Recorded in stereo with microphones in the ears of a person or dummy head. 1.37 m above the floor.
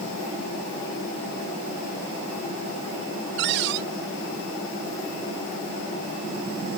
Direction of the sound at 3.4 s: 65° right (ahead or behind).